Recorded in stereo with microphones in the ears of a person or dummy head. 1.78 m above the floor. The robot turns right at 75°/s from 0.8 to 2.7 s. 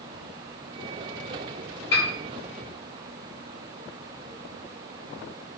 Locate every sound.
1.9 s a piano: 25° left (ahead or behind), 1.5 m; by 2.1 s 35° left (ahead or behind), 1.5 m